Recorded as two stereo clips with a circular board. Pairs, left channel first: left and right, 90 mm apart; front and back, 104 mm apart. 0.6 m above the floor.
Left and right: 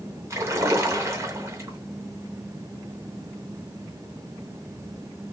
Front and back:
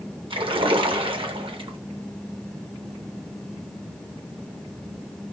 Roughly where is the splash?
Behind right.